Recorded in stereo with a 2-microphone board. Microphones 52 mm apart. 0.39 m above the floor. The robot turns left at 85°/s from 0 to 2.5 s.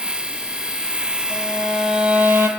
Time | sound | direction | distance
1.3 | a violin | 45° left | 2 m